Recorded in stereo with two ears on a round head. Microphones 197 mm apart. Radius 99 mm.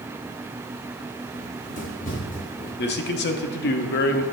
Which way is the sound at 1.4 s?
35° left (ahead or behind).